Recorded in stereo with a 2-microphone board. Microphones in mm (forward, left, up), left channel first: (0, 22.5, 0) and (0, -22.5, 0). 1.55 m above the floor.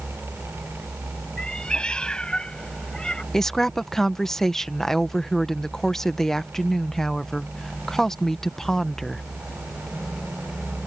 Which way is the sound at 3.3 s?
10° left (ahead or behind).